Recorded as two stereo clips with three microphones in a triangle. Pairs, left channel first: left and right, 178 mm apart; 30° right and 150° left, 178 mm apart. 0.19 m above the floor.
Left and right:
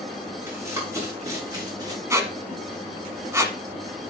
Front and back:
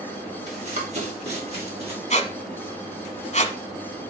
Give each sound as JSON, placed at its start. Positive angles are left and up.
{"t": 0.5, "sound": "running footsteps", "azimuth_deg": -165, "distance_m": 4.5}
{"t": 2.1, "sound": "a squeak", "azimuth_deg": -30, "distance_m": 1.1}